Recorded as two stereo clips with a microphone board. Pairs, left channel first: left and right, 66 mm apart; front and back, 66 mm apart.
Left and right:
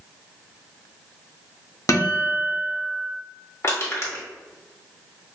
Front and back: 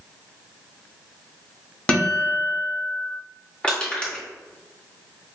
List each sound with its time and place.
1.9 s a guitar: 65° left, 0.9 m
3.6 s crushing: 65° left, 1.2 m